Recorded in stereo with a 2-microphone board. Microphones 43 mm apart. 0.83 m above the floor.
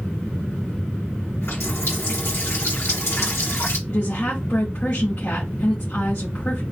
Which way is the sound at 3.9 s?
55° left (ahead or behind).